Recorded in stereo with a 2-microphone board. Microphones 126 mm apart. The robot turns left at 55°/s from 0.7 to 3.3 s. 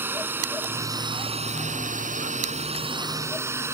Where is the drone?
15° right (ahead or behind); by 3.7 s 20° right (ahead or behind).